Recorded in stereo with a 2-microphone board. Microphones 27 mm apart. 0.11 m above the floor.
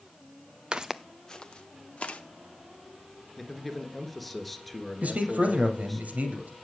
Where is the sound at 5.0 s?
60° right (ahead or behind), 2.5 m.